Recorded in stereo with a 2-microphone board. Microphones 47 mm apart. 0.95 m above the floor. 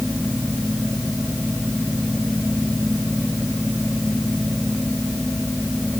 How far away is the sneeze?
No sneeze in this recording.